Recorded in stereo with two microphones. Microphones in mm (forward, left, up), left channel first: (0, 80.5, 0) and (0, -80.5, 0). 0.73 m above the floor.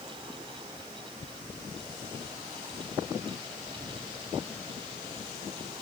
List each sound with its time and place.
Only background noise.